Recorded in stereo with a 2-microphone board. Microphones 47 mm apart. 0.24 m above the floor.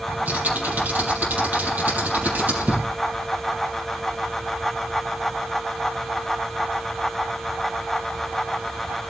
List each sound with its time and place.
0.1 s typing on a keyboard: 40° right (ahead or behind), 5.5 m